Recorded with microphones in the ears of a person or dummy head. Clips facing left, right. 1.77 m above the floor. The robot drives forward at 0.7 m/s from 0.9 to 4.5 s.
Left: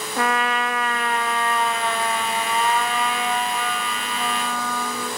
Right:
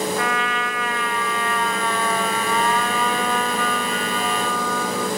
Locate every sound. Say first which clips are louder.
0.2 s a trumpet: left 1 dB; 35° left (ahead or behind), 0.5 m; by 5.1 s 5° left (ahead or behind), 2.5 m